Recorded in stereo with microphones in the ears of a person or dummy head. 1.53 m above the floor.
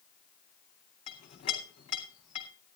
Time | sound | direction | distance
1.1 | a clink | 35° left (ahead or behind) | 3 m